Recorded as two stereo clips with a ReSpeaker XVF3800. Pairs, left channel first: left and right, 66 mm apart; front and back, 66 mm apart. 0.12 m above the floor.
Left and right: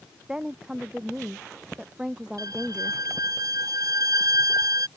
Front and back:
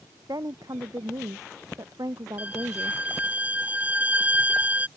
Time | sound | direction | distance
0.3 | a woman speaking | 170° right | ?
2.4 | a violin | 115° right | ?